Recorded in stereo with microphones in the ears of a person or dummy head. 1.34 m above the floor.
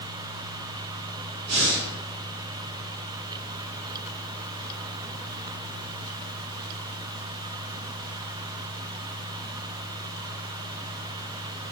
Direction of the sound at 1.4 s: 50° right (ahead or behind).